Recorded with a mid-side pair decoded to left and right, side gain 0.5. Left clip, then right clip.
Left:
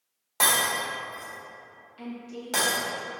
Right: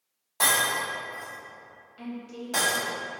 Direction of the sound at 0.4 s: 40° left.